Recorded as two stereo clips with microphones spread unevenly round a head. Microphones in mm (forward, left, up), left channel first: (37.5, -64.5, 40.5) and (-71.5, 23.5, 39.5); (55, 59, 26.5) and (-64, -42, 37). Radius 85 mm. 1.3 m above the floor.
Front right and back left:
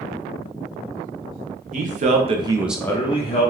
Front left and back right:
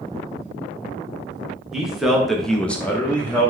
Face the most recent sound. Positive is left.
turn(degrees=-35)